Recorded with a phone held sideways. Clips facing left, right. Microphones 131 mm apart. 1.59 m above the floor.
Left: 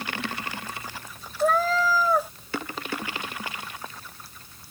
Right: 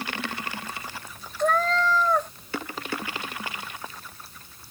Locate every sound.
1.4 s a cat meowing: 5° left (ahead or behind)